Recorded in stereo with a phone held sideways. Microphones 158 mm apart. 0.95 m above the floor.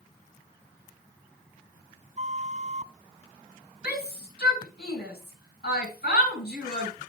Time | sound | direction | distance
2.2 | a flute | 45° right (ahead or behind) | 0.5 m
3.8 | a shout | 85° left | 8.5 m